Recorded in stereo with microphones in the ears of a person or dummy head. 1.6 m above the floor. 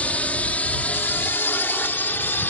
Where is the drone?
Centre (ahead or behind).